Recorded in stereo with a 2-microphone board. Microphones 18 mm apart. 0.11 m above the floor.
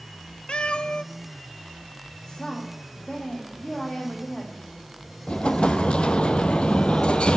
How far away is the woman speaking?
About 4 m.